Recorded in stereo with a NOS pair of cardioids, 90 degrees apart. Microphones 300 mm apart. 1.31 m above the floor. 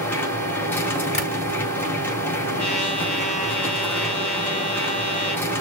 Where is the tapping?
25° left, 4.5 m.